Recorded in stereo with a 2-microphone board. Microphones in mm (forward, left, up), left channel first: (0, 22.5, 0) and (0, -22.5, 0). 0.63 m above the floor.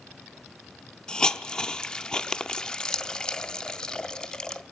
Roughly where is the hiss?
Centre.